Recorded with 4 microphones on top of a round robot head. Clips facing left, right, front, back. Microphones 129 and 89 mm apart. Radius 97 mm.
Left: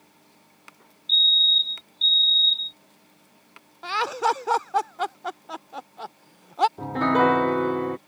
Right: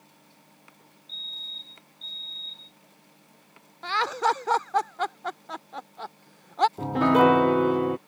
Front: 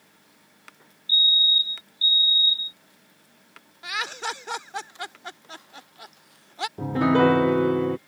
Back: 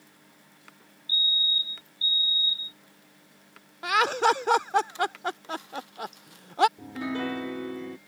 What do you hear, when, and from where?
1.1 s a fire alarm: 85° left
3.8 s laughter: 170° left
6.8 s a piano: 10° right